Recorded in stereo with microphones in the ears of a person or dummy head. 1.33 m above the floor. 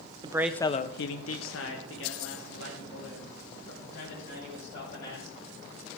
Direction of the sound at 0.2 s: 20° right (ahead or behind).